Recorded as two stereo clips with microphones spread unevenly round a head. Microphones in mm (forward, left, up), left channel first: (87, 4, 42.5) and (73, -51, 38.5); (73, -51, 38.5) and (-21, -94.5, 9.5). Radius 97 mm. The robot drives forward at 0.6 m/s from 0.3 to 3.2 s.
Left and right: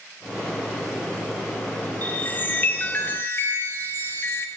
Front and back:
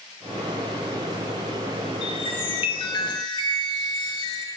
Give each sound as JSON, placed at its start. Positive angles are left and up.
{"t": 2.0, "sound": "a chime", "azimuth_deg": 20, "distance_m": 1.6}